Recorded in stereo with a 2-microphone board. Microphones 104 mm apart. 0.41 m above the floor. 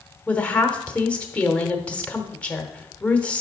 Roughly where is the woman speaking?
Centre.